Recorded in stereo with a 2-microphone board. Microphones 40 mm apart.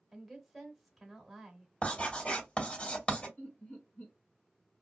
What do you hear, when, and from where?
0.1 s a woman speaking: centre (ahead or behind), 0.9 m
1.8 s writing: 30° left (ahead or behind), 1.7 m
3.4 s laughter: 50° left (ahead or behind), 1.4 m